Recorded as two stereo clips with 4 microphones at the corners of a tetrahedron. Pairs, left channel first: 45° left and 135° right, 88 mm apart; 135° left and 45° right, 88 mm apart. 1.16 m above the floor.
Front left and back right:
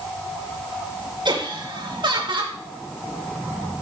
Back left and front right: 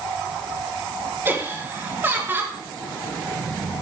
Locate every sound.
1.2 s laughter: 110° right, 3 m